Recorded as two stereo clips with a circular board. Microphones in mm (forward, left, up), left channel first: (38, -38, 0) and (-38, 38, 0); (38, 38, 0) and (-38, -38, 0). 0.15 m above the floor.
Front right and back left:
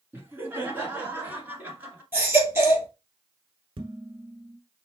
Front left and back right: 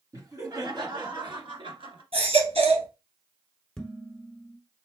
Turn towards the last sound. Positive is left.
turn(degrees=125)